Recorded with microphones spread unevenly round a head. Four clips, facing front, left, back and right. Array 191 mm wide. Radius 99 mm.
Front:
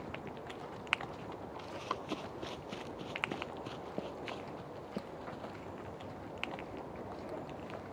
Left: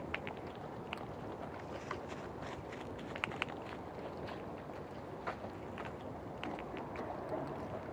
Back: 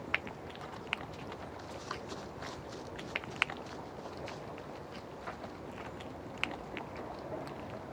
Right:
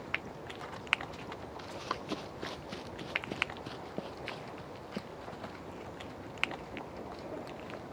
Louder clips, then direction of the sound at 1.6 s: Right 4 dB, front 2 dB; 60° right.